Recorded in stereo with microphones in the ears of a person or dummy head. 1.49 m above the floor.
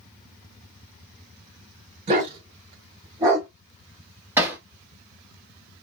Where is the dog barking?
35° right (ahead or behind), 2 m; by 3.5 s 15° right (ahead or behind), 1.7 m.